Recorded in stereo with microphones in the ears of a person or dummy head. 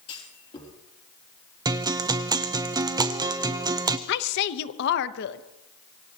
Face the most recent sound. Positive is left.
turn(degrees=60)  # may be behind; listen again after turning